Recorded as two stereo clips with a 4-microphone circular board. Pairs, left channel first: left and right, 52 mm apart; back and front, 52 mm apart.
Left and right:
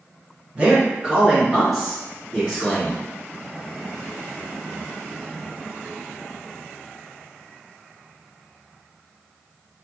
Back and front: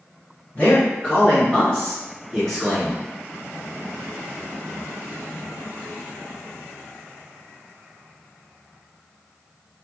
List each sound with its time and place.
0.6 s a man speaking: 140° right, 1.7 m; by 3.0 s 85° left, 1.5 m